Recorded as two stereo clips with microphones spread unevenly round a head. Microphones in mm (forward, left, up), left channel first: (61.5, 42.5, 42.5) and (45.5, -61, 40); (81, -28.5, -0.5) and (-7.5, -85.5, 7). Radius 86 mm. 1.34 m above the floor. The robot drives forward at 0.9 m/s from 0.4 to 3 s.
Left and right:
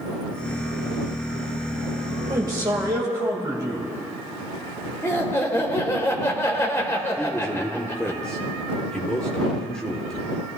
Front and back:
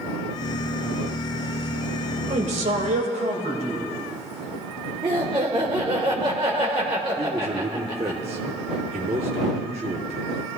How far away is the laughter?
About 1.3 m.